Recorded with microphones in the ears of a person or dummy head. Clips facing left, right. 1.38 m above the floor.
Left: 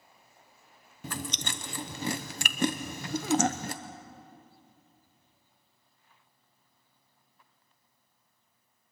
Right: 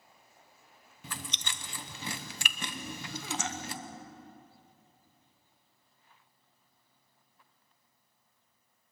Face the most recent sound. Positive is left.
turn(degrees=45)  # may be behind; listen again after turning